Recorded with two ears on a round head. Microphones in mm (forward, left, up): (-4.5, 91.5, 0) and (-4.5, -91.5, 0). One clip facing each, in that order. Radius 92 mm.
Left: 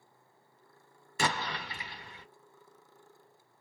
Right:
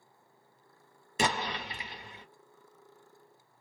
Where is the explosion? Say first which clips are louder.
Right 2 dB; 20° right (ahead or behind), 0.7 m.